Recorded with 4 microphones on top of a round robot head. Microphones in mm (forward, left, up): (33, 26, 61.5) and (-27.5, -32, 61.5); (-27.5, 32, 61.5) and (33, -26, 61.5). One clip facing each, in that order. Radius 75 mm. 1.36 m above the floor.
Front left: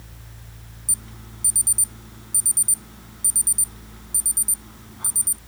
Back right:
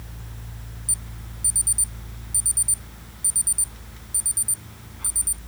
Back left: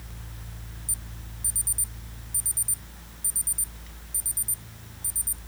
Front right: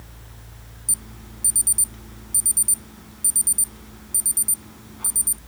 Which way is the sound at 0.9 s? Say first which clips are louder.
Even, front right 4 dB; 20° right.